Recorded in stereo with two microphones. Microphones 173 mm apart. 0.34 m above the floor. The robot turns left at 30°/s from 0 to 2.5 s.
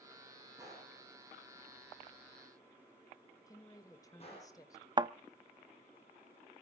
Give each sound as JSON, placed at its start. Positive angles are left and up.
{"t": 0.6, "sound": "a gunshot", "side_deg": -20, "distance_m": 7.5}
{"t": 3.5, "sound": "a woman speaking", "side_deg": 20, "distance_m": 1.2}
{"t": 5.0, "sound": "a thud", "side_deg": -25, "distance_m": 0.5}